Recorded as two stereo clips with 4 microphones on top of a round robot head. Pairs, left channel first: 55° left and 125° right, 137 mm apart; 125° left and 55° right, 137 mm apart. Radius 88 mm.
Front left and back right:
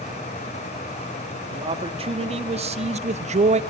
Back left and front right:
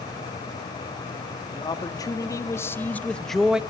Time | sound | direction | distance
1.5 | a man speaking | 175° right | 2 m